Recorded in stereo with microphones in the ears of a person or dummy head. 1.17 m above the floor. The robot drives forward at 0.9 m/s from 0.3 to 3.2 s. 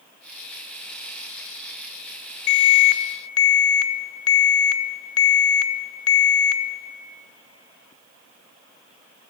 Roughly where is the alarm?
Left.